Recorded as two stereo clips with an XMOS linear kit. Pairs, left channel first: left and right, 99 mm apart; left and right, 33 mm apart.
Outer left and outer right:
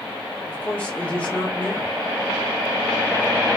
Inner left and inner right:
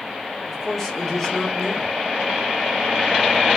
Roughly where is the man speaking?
Centre.